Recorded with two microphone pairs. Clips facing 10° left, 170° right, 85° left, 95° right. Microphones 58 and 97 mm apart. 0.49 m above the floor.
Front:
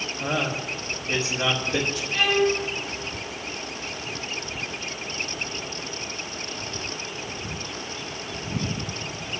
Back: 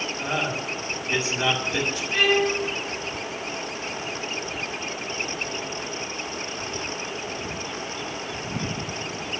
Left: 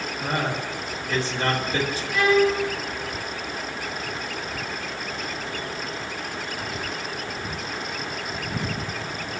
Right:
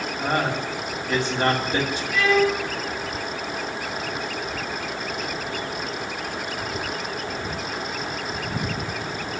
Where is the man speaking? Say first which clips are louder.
Front 1 dB, right 3 dB; 30° right, 2.0 m.